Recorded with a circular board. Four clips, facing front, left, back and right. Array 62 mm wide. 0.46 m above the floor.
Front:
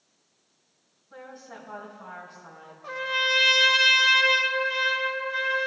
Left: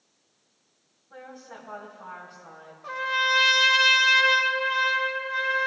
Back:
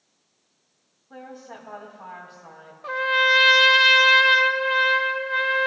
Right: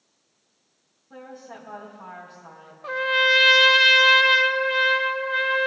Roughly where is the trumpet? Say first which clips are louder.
Right 4 dB, back 7 dB; behind right.